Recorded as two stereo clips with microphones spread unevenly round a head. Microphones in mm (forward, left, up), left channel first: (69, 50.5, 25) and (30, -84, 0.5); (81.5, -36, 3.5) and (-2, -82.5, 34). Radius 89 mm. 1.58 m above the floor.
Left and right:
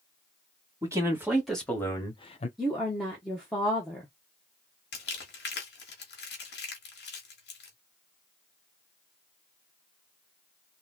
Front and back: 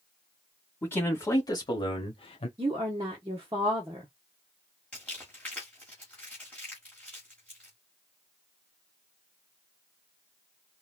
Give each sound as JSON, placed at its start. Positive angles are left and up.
{"t": 0.8, "sound": "a man speaking", "azimuth_deg": -35, "distance_m": 1.5}
{"t": 2.6, "sound": "a woman speaking", "azimuth_deg": 155, "distance_m": 0.7}
{"t": 4.9, "sound": "crumpling", "azimuth_deg": 110, "distance_m": 1.2}